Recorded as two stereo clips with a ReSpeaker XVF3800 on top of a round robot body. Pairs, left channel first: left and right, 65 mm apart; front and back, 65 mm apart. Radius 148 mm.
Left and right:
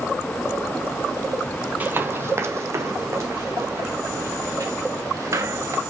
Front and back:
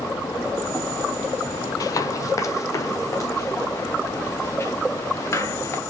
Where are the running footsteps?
30° right, 0.5 m; by 5.8 s 45° right, 4 m.